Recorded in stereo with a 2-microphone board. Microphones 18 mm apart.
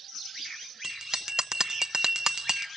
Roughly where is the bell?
Right.